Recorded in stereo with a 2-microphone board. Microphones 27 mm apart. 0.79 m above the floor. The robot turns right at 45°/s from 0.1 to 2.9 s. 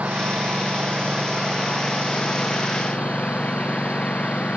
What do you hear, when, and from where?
0.0 s a lawn mower: 75° right; by 4.6 s 50° left